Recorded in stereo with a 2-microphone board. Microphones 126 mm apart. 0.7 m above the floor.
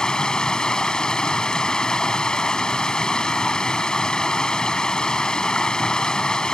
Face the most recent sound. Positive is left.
turn(degrees=5)  # may be behind; listen again after turning